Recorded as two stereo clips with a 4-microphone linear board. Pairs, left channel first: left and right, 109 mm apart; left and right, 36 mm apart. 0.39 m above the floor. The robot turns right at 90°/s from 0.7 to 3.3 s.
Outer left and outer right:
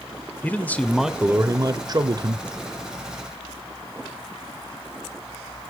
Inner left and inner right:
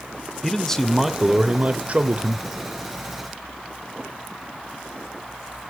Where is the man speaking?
155° left, 1.0 m; by 2.5 s 45° right, 1.0 m.